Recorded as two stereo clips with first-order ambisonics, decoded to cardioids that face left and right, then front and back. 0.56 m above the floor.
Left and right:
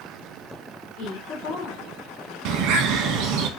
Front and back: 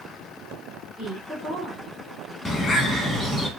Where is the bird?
80° right, 0.6 m.